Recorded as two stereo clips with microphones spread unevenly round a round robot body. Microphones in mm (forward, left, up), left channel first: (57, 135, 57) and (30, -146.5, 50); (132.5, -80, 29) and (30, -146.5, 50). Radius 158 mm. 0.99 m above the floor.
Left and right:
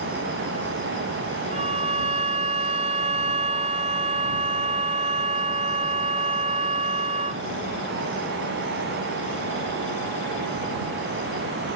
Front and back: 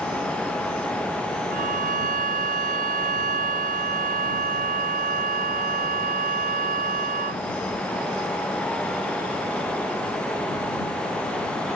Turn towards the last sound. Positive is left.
turn(degrees=-165)